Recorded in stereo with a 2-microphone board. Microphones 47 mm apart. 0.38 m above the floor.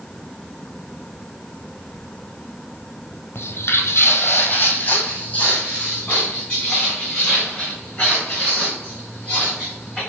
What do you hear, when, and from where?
3.4 s footsteps: 55° left (ahead or behind), 0.6 m; by 10.0 s 15° left (ahead or behind), 4.5 m